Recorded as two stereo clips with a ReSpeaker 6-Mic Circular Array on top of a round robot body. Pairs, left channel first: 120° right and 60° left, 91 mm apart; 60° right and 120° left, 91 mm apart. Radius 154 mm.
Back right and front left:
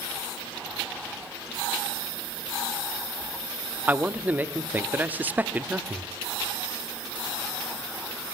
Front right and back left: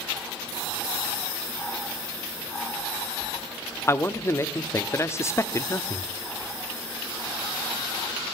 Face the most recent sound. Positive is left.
turn(degrees=-5)